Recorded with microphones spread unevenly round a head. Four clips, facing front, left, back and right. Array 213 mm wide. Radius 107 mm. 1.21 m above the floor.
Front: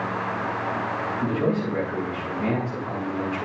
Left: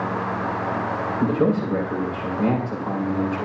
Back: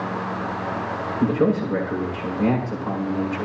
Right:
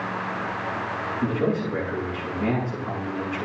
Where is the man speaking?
130° left, 7 m.